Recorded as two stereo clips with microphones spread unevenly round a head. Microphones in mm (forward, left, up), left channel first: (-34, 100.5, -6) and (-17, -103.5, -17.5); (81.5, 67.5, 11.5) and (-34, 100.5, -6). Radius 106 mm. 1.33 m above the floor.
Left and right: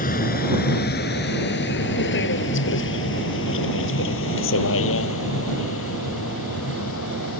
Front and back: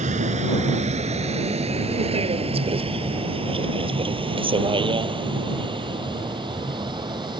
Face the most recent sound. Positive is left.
turn(degrees=110)